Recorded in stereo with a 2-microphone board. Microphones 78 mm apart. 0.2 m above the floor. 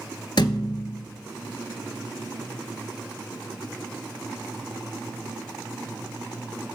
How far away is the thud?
About 1.0 m.